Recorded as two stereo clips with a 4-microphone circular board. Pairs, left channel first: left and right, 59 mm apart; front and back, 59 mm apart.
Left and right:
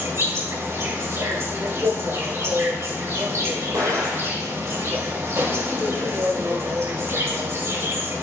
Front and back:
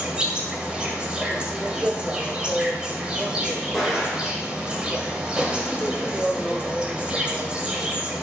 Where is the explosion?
100° right, 6 m.